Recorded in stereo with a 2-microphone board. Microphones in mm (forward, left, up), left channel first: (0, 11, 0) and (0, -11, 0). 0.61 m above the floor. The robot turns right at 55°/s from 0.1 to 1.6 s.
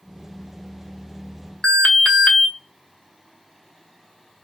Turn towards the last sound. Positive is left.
turn(degrees=55)  # may be behind; listen again after turning